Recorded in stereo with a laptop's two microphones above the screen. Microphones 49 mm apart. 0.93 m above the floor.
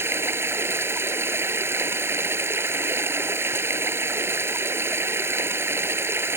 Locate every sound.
0.0 s running water: 55° right (ahead or behind)